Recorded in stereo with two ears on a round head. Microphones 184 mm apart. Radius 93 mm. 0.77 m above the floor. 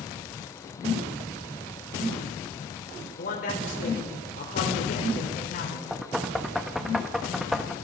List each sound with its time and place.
3.2 s a man speaking: 40° left (ahead or behind), 2.5 m
5.9 s knocking: centre (ahead or behind), 0.6 m